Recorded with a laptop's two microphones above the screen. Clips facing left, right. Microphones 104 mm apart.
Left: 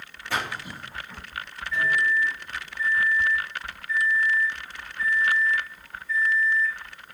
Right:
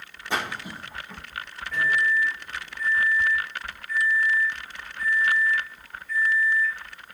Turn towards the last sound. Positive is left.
turn(degrees=-60)  # may be behind; listen again after turning